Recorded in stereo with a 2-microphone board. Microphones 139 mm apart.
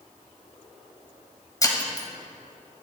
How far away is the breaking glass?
About 1.6 m.